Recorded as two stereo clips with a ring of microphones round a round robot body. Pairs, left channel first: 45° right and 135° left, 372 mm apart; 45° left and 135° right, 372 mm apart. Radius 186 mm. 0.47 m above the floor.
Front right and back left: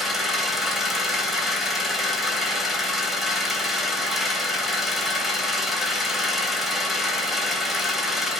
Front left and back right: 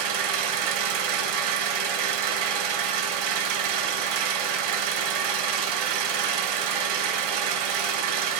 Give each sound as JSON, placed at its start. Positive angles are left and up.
{"t": 0.0, "sound": "an engine running", "azimuth_deg": -135, "distance_m": 2.5}